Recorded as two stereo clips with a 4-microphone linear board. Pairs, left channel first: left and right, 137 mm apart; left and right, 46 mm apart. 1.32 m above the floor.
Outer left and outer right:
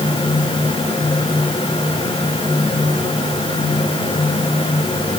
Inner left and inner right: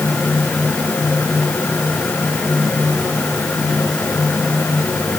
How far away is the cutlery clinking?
No cutlery clinking in this recording.